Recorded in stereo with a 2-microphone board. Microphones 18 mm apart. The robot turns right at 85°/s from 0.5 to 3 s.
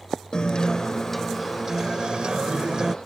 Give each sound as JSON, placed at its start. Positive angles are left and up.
{"t": 0.3, "sound": "a guitar", "azimuth_deg": 115}